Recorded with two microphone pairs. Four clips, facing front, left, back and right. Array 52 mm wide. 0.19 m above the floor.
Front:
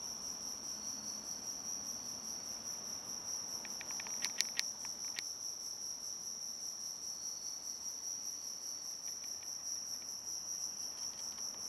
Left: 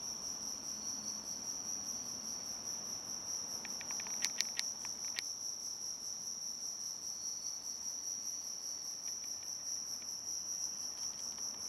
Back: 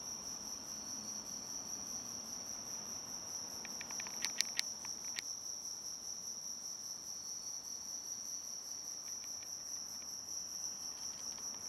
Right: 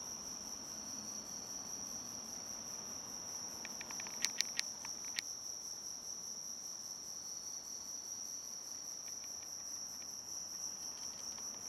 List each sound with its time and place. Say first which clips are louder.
0.0 s an insect: left 1 dB, even; 50° left, 3 m